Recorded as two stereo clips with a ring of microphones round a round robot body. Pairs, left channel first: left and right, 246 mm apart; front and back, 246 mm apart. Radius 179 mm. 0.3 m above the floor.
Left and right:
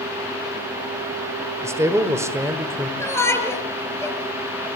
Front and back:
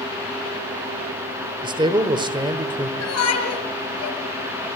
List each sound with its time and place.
1.6 s a man speaking: 150° right, 1.4 m
3.0 s a shout: 10° left, 6.5 m